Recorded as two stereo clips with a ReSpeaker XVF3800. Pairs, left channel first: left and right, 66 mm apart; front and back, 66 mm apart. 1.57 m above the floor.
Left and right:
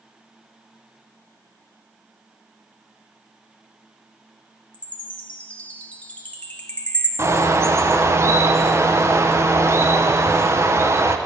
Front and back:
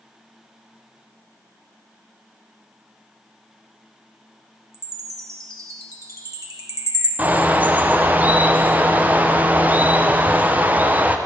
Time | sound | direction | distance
4.7 | a chime | 160° left | 1.2 m
7.2 | a bird | 120° right | 0.7 m